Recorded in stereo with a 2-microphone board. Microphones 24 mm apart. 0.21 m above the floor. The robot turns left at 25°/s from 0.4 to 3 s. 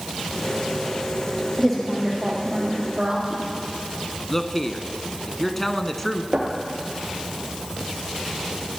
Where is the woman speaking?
5° left, 8 m; by 3.4 s 30° right, 8 m.